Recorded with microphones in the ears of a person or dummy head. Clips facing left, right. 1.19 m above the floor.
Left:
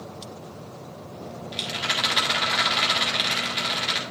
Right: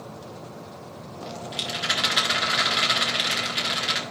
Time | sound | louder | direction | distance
1.5 | a rattle | even | 5° right (ahead or behind) | 1.8 m